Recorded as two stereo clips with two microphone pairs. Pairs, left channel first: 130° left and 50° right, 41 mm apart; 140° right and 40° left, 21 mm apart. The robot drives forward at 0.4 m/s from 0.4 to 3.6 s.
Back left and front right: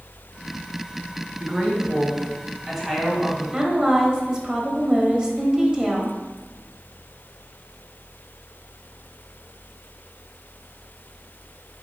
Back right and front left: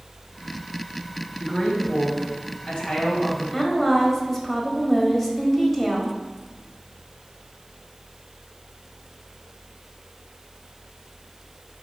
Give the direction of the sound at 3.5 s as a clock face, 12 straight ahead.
2 o'clock.